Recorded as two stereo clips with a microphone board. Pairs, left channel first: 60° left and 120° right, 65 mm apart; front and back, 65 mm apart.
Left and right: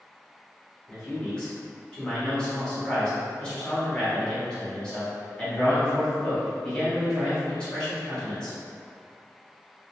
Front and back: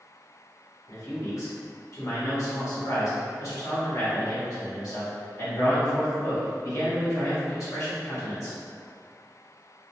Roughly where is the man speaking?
Ahead.